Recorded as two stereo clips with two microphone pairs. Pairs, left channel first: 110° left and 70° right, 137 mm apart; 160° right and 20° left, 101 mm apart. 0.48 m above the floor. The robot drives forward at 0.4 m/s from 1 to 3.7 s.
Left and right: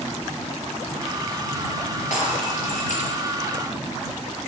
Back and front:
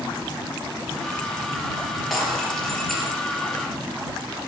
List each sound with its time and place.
2.1 s breaking glass: 110° left, 4.5 m; by 3.2 s 115° left, 5 m